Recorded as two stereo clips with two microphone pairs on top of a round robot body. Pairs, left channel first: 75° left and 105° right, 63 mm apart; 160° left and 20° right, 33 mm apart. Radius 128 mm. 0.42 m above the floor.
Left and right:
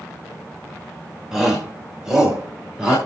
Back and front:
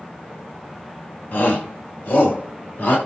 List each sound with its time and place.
1.3 s a shout: 175° left, 2 m